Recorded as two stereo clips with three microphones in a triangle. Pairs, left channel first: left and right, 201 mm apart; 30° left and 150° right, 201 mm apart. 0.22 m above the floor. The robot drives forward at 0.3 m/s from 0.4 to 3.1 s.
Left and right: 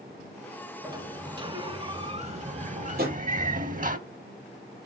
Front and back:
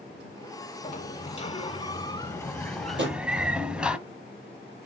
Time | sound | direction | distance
0.8 | a sliding door | 25° right | 1.0 m
3.0 | a drawer | 130° right | 3.5 m